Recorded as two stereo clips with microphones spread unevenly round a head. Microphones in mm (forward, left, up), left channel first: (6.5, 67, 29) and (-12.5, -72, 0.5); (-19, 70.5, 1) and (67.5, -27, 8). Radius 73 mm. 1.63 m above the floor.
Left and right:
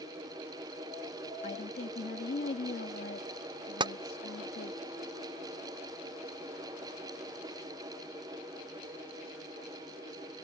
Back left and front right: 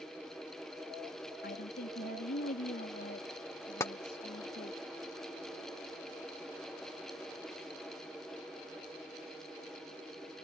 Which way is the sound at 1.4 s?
125° left.